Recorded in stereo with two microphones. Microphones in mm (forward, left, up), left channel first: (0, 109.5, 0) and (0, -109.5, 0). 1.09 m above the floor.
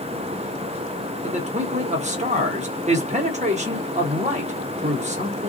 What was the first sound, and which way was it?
A man speaking, 30° right (ahead or behind).